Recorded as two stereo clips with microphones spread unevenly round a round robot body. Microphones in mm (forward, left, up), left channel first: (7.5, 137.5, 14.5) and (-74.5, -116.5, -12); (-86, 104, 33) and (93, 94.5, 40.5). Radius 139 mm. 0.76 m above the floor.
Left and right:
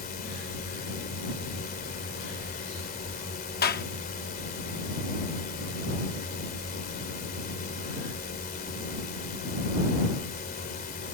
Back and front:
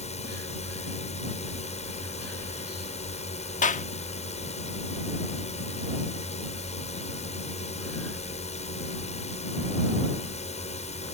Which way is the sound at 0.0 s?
130° left.